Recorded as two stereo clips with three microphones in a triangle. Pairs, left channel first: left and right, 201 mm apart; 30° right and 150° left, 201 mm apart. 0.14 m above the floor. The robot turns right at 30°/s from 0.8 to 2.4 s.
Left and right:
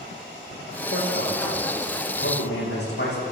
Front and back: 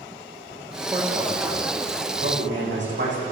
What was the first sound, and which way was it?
A man speaking, 75° left.